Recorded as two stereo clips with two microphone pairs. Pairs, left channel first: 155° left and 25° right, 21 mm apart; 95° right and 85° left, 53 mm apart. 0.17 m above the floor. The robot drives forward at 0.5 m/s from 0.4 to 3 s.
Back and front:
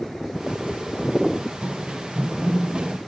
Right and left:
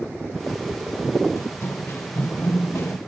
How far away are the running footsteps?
About 1.4 m.